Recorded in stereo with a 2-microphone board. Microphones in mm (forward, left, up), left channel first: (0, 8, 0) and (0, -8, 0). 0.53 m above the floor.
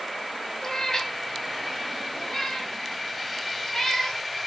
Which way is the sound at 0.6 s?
35° left (ahead or behind).